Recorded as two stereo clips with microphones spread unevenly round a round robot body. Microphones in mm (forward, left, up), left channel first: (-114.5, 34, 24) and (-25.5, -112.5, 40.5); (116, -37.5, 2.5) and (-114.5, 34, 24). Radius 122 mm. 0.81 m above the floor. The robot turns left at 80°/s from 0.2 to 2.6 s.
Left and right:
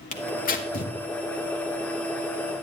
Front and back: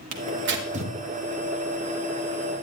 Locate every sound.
0.1 s tearing paper: 145° left, 1.4 m; by 0.9 s 90° left, 1.4 m